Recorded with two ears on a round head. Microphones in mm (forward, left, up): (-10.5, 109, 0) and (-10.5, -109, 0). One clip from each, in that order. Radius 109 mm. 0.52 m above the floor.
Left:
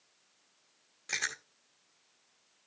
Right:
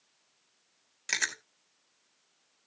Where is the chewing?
65° right (ahead or behind), 2 m.